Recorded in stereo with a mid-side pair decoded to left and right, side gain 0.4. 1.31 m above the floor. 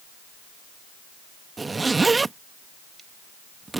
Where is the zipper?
30° right.